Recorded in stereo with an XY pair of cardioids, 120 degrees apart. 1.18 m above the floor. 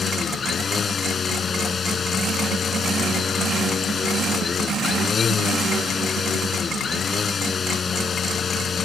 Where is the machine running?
35° left.